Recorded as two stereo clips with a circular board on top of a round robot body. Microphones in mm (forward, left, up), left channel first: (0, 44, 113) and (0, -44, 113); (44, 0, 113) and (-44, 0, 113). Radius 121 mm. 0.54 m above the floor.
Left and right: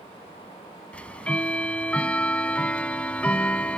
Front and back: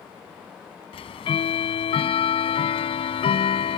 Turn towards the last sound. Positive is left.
turn(degrees=10)